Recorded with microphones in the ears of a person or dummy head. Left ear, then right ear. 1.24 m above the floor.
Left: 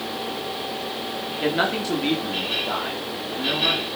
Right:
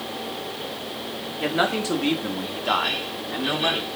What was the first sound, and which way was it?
A man speaking, 5° right (ahead or behind).